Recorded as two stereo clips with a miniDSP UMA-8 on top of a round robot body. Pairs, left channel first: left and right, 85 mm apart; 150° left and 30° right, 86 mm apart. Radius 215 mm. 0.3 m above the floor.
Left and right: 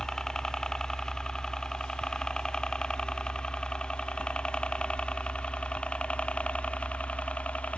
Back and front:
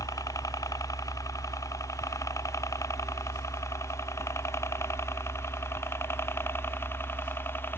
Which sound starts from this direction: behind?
A helicopter, at 0.0 s.